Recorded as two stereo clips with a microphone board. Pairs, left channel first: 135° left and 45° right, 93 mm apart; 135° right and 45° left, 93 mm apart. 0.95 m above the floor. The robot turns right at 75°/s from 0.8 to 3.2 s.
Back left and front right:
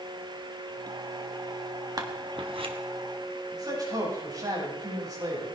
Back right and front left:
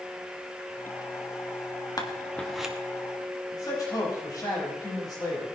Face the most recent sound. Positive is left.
turn(degrees=-90)